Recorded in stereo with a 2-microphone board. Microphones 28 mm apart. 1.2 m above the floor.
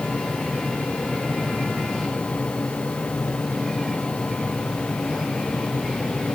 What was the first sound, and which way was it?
Only background noise.